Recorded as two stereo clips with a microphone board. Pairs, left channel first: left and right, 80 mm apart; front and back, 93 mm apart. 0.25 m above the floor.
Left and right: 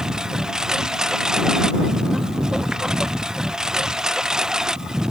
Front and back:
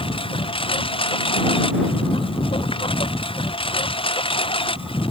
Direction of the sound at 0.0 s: 5° right.